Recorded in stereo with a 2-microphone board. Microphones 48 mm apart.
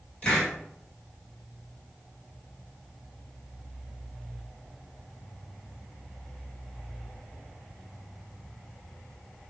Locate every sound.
0.2 s a hiss: 20° left (ahead or behind), 1.8 m